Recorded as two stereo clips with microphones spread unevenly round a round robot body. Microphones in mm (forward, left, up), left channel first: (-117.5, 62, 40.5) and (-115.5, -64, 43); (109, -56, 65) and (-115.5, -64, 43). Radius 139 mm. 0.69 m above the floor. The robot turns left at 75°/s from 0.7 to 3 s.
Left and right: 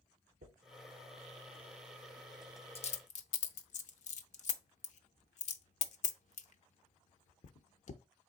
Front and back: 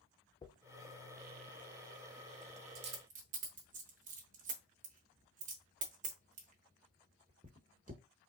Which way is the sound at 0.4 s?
70° right.